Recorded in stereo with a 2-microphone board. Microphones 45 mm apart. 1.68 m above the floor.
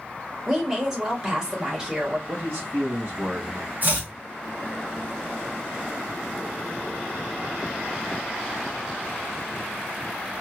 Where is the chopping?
40° right (ahead or behind), 0.9 m.